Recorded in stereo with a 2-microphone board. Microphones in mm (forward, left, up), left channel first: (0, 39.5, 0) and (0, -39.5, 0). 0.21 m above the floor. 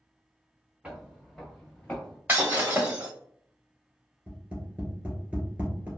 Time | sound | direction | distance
0.8 | footsteps | 10° right (ahead or behind) | 1.5 m
2.3 | breaking glass | 25° right (ahead or behind) | 1.9 m
4.3 | tapping | 20° right (ahead or behind) | 2.0 m